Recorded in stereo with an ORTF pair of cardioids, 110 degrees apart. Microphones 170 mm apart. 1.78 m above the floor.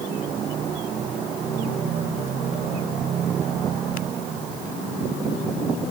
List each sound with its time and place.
Only background noise.